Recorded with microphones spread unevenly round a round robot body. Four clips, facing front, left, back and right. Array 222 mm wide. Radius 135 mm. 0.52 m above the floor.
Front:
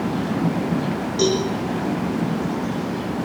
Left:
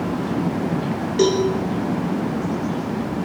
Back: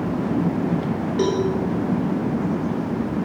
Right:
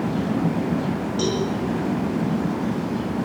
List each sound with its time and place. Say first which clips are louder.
1.2 s a cowbell: left 8 dB, front 1 dB; 90° left, 8.5 m